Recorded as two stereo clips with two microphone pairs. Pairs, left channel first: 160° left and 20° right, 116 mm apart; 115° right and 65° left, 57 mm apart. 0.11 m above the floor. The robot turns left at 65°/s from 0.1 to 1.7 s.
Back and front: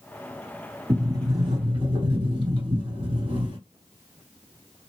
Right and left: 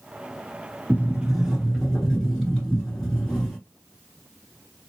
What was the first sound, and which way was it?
A sliding door, 25° left.